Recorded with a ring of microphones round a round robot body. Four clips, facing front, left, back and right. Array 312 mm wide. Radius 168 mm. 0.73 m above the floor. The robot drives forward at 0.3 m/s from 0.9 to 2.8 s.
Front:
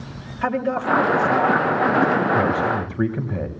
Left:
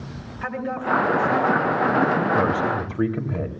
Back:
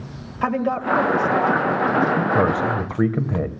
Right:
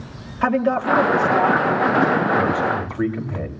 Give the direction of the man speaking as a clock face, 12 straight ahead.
6 o'clock.